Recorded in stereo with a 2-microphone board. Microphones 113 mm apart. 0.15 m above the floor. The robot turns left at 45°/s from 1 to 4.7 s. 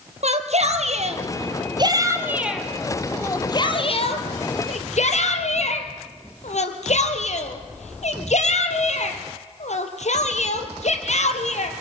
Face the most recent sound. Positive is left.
turn(degrees=75)  # may be behind; listen again after turning